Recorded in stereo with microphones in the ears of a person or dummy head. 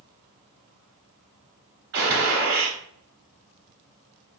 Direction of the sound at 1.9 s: 55° right (ahead or behind).